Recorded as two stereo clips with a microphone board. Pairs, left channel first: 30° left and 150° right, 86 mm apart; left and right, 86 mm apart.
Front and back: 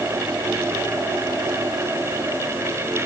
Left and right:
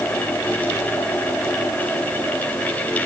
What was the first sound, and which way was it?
Only background noise.